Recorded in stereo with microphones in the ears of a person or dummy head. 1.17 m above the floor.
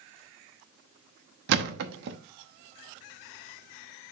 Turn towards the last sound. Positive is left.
turn(degrees=-60)  # may be behind; listen again after turning